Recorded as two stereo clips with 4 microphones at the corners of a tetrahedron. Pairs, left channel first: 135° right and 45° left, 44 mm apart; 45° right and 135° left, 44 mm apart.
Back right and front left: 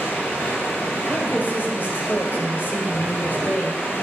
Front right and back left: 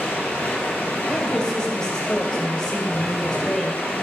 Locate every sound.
0.0 s running water: 100° right, 1.7 m
1.1 s a woman speaking: 115° right, 1.6 m